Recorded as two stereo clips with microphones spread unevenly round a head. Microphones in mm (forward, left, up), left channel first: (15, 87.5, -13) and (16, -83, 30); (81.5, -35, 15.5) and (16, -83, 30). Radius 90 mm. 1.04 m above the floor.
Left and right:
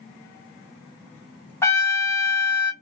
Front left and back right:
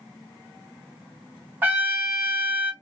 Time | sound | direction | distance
1.6 | a trumpet | straight behind | 0.5 m